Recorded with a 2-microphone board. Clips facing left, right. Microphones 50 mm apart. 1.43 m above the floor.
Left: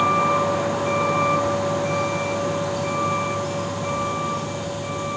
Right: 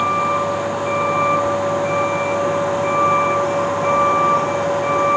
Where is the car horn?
I don't hear a car horn.